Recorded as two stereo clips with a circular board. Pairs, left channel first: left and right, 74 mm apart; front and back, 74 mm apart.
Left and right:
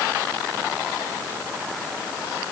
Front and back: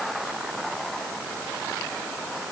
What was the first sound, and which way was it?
Only background noise.